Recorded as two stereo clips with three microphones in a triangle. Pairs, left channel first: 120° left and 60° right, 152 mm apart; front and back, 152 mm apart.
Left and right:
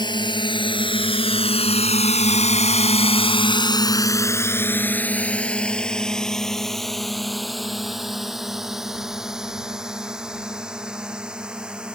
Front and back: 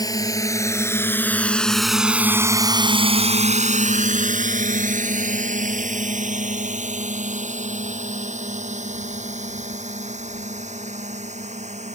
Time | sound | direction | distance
0.0 | a drone | 65° left | ?